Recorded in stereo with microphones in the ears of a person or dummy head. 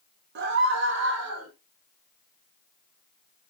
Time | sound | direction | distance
0.3 | a scream | 55° right (ahead or behind) | 1.9 m